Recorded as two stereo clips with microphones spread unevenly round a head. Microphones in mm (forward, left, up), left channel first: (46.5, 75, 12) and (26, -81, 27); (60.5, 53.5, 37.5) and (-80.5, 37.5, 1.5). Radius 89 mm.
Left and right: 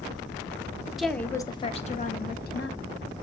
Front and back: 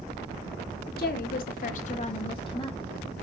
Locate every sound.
1.0 s a woman speaking: 10° right, 0.7 m; by 2.9 s 65° left, 1.0 m